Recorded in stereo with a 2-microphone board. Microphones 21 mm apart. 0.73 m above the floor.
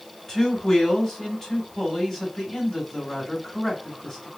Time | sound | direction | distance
0.3 | a man speaking | centre (ahead or behind) | 3 m